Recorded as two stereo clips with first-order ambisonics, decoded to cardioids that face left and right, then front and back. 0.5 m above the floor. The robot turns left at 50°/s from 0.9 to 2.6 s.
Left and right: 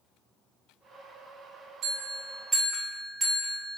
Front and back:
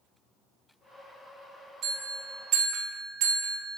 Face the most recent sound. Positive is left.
turn(degrees=-175)